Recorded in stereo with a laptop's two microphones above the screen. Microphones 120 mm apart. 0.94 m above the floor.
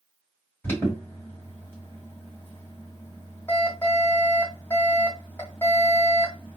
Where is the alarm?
15° left (ahead or behind), 2.5 m.